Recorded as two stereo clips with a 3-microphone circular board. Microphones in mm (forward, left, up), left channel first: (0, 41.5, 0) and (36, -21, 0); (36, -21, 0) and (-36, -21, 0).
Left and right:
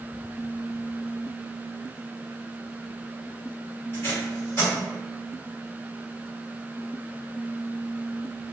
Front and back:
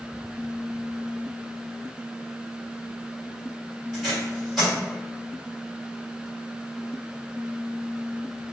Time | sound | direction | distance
3.9 | tape being pulled | 100° left | 1.6 m